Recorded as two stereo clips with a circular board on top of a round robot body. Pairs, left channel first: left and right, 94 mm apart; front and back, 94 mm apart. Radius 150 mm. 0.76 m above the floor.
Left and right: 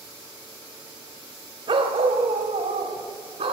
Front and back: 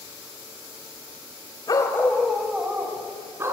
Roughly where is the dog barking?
Ahead right.